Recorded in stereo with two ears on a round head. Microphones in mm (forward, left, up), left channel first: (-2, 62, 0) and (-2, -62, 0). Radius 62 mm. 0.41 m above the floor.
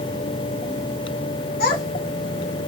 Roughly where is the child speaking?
Left.